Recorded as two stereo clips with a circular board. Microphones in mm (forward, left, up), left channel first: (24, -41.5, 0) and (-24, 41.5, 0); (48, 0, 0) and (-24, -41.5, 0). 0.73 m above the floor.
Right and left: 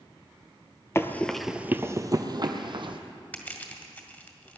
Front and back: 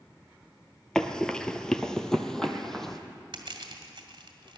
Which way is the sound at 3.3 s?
130° right.